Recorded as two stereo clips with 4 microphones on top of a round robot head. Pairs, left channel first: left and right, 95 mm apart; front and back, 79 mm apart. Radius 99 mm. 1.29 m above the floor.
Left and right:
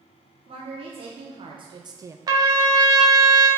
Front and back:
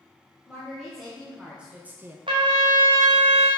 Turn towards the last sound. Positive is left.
turn(degrees=-135)